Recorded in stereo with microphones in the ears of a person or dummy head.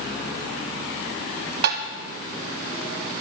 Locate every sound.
1.6 s tapping: 60° right (ahead or behind), 1.6 m